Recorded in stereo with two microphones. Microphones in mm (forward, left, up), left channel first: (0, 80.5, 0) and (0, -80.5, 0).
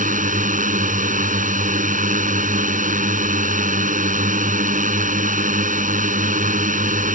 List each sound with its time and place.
0.0 s a drone: 55° right (ahead or behind)